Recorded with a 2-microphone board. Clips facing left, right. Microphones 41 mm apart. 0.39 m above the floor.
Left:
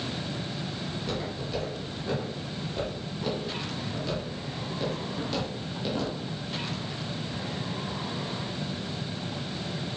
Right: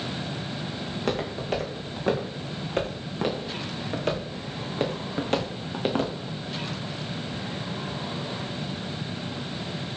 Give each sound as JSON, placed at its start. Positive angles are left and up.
{"t": 0.9, "sound": "footsteps", "side_deg": -60, "distance_m": 5.5}